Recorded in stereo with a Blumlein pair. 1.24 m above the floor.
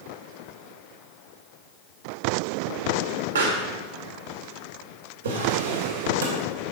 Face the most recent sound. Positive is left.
turn(degrees=-65)